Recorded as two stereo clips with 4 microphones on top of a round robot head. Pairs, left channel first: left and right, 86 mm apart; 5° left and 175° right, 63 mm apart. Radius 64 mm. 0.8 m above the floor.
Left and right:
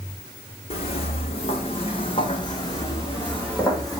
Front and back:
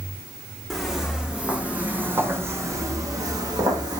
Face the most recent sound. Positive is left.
turn(degrees=180)